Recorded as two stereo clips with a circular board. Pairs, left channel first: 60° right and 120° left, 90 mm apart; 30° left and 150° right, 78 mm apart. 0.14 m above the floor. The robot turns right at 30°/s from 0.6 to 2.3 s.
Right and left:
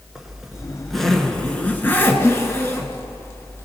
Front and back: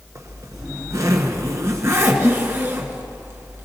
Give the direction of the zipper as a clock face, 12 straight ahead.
5 o'clock.